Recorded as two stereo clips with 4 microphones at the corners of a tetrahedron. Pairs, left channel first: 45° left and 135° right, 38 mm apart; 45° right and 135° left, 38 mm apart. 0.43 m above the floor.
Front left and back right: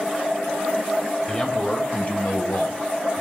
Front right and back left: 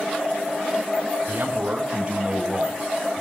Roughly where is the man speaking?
Left.